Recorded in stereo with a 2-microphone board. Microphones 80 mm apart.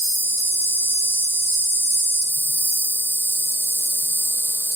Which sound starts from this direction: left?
An insect, at 0.0 s.